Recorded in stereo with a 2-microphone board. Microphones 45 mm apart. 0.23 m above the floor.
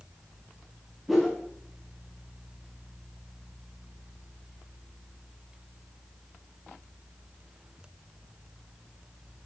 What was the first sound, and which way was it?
A whoosh, centre (ahead or behind).